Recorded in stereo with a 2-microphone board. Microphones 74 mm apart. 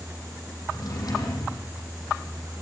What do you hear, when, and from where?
0.7 s a drawer: 60° left (ahead or behind), 6.5 m